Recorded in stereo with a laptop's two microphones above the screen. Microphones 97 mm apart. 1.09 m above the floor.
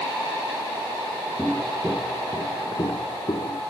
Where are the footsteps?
10° left (ahead or behind), 1.1 m; by 3.6 s 50° left (ahead or behind), 1.7 m.